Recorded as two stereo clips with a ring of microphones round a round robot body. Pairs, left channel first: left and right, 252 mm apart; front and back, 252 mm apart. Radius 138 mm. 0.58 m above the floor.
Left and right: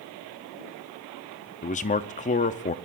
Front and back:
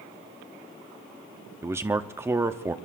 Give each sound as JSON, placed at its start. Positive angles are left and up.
{"t": 1.6, "sound": "a man speaking", "azimuth_deg": 110, "distance_m": 0.6}